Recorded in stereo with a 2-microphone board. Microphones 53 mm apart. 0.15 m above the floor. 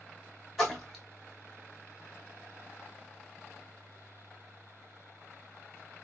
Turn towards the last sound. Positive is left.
turn(degrees=0)  # may be behind; listen again after turning